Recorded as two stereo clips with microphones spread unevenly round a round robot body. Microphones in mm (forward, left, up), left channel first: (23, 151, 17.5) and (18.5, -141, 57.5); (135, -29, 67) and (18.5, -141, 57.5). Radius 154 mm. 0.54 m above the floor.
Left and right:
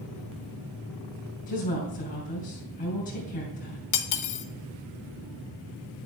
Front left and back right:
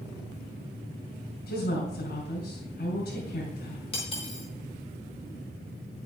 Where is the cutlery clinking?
110° left, 0.9 m.